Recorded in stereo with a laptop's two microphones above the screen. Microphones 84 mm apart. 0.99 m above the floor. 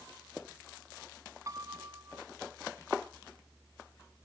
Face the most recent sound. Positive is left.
turn(degrees=-40)  # may be behind; listen again after turning